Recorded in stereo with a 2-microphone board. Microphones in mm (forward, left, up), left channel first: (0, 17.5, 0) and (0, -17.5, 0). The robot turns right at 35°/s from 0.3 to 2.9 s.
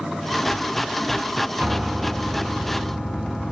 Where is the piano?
30° right, 2 m; by 3.5 s 15° left, 2 m.